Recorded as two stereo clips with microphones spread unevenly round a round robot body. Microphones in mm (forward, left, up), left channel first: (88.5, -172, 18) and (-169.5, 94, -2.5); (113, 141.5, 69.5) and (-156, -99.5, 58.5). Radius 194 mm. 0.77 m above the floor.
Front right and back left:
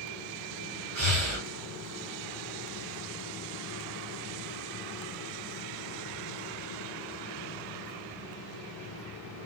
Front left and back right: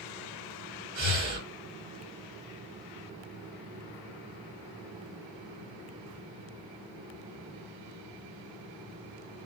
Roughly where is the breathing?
Behind.